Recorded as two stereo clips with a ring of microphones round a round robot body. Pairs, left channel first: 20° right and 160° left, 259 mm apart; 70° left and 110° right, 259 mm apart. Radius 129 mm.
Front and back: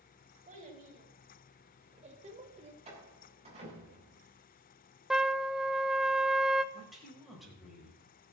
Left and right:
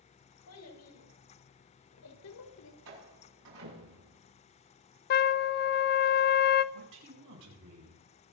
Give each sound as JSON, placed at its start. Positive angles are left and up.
{"t": 0.5, "sound": "a child speaking", "azimuth_deg": 95, "distance_m": 4.0}
{"t": 2.9, "sound": "a door slam", "azimuth_deg": -135, "distance_m": 7.5}
{"t": 5.1, "sound": "a trumpet", "azimuth_deg": 70, "distance_m": 0.6}
{"t": 6.7, "sound": "a man speaking", "azimuth_deg": -115, "distance_m": 6.0}